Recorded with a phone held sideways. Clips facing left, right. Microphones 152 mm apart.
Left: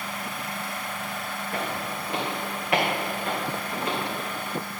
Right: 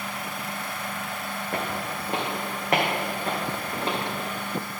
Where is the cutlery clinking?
No cutlery clinking in this recording.